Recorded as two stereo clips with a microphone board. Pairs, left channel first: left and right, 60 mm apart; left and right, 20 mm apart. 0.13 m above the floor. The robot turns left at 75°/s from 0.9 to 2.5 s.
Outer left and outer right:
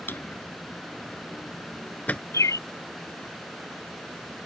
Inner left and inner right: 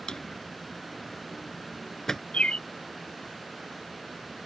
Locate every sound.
0.1 s a drawer: 35° left (ahead or behind); by 2.2 s 20° left (ahead or behind)
2.3 s a bird: 65° left (ahead or behind); by 2.7 s 70° left (ahead or behind)